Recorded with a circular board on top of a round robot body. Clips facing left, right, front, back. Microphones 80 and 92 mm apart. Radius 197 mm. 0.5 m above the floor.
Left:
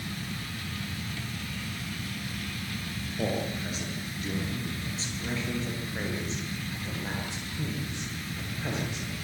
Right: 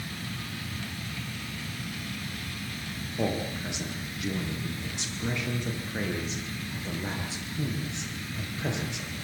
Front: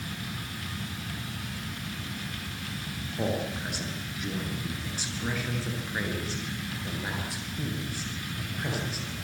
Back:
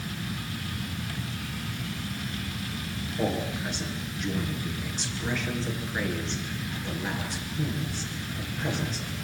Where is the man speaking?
80° right, 9 m; by 9.2 s 85° right, 14 m.